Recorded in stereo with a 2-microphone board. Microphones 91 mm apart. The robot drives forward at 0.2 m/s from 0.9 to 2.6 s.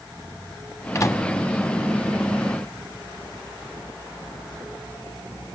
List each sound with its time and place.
0.9 s a microwave: 35° left (ahead or behind), 1.1 m